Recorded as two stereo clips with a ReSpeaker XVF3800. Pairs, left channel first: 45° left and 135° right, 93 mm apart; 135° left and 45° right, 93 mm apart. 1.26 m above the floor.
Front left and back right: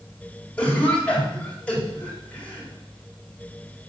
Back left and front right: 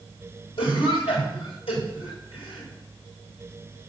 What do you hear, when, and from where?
0.6 s a cough: 120° left, 3.5 m